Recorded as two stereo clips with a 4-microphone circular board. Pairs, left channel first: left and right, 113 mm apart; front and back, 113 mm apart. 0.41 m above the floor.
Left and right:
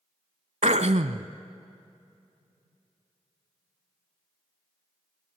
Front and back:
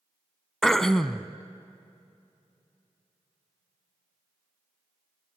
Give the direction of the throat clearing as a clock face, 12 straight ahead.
3 o'clock.